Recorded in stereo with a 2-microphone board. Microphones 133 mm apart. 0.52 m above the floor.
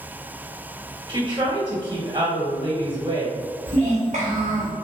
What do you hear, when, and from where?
1.1 s a woman speaking: 35° right (ahead or behind), 1.4 m
3.7 s a child speaking: 65° right (ahead or behind), 1.0 m